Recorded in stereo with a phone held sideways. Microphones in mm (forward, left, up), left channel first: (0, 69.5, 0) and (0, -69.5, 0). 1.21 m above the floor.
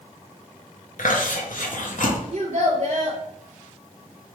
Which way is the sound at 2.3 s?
65° right (ahead or behind).